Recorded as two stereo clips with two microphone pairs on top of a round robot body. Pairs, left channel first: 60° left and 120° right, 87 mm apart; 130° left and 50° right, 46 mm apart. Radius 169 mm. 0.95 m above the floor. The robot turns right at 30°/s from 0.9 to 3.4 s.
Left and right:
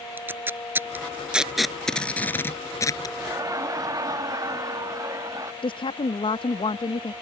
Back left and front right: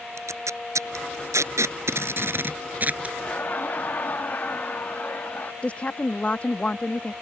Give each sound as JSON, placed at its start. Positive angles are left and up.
{"t": 0.2, "sound": "tape being pulled", "azimuth_deg": -50}
{"t": 3.2, "sound": "laughter", "azimuth_deg": 180}
{"t": 5.6, "sound": "a woman speaking", "azimuth_deg": 70}